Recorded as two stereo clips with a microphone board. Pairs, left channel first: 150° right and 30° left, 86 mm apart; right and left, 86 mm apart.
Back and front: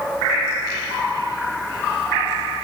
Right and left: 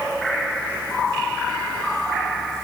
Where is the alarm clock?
I don't hear an alarm clock.